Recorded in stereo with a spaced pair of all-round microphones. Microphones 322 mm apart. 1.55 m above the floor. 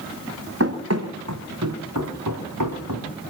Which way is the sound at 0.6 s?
45° right (ahead or behind).